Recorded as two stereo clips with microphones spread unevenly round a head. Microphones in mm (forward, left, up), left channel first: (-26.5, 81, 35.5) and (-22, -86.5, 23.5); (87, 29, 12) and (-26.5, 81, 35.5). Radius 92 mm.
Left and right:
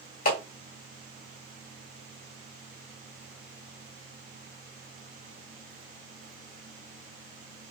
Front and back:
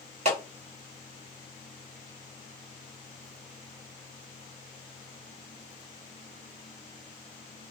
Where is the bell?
No bell in this recording.